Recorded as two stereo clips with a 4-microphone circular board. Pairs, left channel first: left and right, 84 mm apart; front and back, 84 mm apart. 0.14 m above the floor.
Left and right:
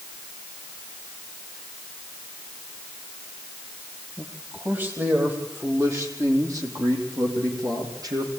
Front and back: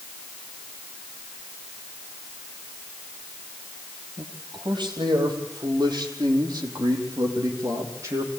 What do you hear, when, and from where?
4.2 s a man speaking: 160° right, 5 m; by 8.3 s 130° right, 5.5 m